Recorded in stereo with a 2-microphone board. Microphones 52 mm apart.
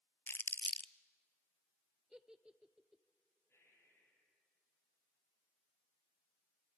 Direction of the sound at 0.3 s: 40° left (ahead or behind).